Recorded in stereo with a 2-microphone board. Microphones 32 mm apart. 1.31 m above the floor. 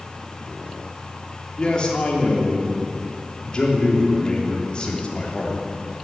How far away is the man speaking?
About 3 m.